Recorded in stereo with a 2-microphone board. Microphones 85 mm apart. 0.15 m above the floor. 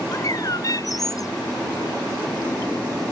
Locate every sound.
0.1 s a bird: 45° left (ahead or behind)